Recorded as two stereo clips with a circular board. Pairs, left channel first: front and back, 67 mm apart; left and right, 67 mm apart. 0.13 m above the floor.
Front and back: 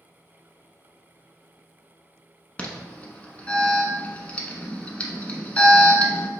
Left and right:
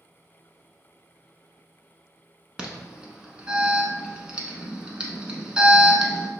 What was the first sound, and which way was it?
An alarm, 40° right.